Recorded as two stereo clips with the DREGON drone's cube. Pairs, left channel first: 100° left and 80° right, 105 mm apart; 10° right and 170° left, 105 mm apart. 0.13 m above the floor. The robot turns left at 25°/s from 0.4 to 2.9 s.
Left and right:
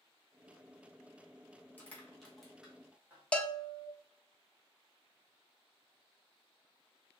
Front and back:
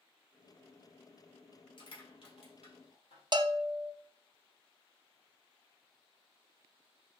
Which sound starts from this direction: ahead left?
Crushing, at 1.8 s.